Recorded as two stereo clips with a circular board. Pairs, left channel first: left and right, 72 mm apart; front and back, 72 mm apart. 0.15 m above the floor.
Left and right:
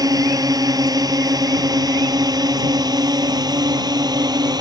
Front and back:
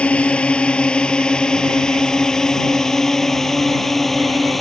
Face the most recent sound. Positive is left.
turn(degrees=-90)